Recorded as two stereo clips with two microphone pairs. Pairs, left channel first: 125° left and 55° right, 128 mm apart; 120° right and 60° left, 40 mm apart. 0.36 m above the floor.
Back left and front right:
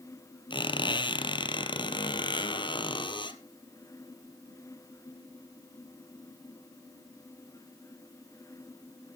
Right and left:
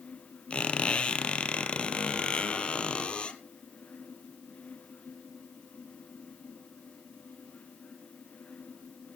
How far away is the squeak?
About 1.0 m.